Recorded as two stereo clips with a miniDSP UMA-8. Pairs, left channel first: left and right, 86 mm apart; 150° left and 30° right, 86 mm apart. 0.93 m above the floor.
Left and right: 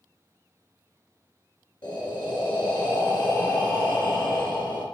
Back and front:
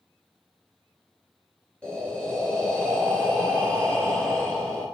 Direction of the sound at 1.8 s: 75° left.